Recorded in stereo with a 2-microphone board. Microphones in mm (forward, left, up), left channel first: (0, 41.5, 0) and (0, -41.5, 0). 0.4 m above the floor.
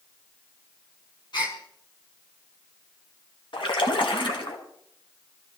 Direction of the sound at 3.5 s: 75° left (ahead or behind).